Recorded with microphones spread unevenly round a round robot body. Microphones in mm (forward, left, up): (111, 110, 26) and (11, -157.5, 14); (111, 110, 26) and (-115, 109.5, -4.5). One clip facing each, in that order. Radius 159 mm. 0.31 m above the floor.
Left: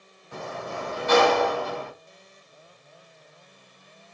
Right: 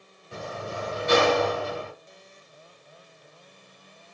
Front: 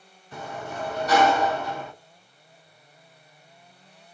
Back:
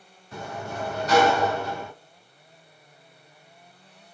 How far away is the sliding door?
About 1.8 m.